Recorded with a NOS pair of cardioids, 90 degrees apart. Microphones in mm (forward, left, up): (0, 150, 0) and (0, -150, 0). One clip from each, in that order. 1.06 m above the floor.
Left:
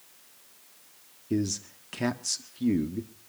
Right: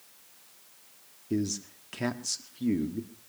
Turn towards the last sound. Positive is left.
turn(degrees=10)